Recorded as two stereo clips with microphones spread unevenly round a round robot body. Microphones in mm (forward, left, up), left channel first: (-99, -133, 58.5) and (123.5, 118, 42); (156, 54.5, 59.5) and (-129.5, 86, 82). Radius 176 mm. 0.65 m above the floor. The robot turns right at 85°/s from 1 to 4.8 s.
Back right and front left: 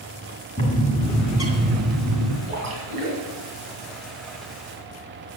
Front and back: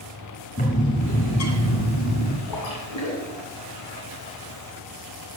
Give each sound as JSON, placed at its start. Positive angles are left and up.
{"t": 0.6, "sound": "a bird", "azimuth_deg": -65, "distance_m": 2.5}
{"t": 2.5, "sound": "a splash", "azimuth_deg": -25, "distance_m": 4.0}